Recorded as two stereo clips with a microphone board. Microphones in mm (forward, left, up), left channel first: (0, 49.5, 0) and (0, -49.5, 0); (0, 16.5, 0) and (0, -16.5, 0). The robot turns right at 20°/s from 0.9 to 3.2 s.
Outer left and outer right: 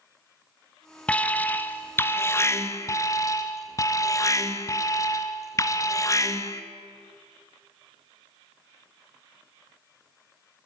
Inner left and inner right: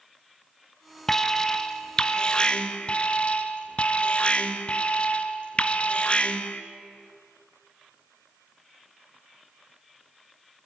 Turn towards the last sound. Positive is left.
turn(degrees=65)